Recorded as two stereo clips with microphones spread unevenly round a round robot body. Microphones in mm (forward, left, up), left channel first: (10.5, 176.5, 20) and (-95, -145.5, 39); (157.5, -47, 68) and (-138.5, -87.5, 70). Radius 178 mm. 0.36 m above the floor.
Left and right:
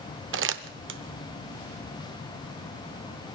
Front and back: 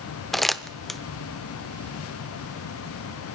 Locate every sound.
0.3 s crumpling: 80° right, 0.8 m